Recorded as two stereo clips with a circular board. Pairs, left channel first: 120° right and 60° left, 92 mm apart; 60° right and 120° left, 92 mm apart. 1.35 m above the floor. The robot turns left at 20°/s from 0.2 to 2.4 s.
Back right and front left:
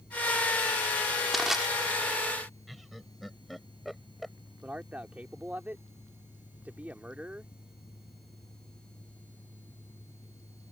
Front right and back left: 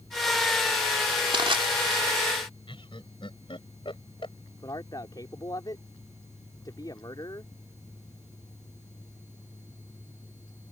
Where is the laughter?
30° right.